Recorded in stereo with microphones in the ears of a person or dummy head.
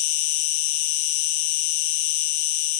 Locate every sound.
0.0 s an insect: 60° left (ahead or behind), 1.1 m